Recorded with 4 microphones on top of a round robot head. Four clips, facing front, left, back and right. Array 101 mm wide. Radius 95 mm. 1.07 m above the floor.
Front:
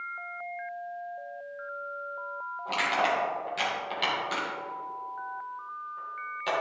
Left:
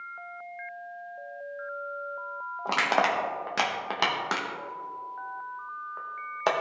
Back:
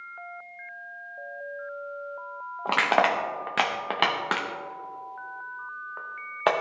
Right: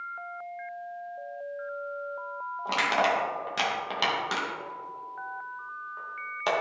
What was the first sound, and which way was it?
Crushing, 160° left.